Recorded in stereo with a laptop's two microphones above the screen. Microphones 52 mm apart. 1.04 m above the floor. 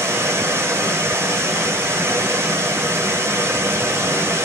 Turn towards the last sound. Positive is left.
turn(degrees=-55)  # may be behind; listen again after turning